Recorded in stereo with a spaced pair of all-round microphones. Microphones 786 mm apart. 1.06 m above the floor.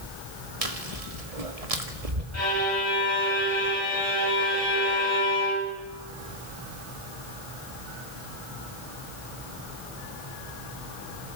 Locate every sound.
0.6 s chewing: 45° right (ahead or behind), 1.8 m
2.3 s a violin: 65° left (ahead or behind), 7 m